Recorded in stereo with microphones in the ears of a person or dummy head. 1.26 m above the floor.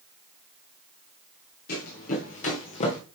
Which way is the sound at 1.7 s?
55° left (ahead or behind).